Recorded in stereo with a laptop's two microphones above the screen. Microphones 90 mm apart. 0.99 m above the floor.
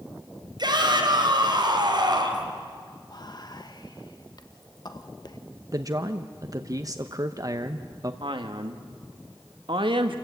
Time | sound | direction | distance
0.6 | a shout | 55° right (ahead or behind) | 4 m
3.1 | whispering | 50° left (ahead or behind) | 1.3 m
5.7 | a man speaking | 40° right (ahead or behind) | 0.8 m
8.2 | a man speaking | 70° right (ahead or behind) | 1.7 m